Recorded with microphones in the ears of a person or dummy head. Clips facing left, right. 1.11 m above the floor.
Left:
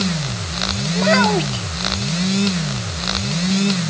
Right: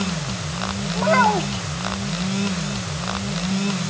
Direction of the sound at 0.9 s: 30° left (ahead or behind).